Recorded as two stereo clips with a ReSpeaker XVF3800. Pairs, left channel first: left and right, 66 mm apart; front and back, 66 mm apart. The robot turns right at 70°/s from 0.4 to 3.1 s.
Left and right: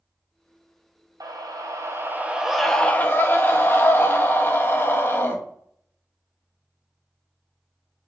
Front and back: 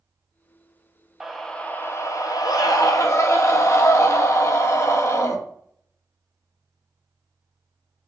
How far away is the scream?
About 0.7 m.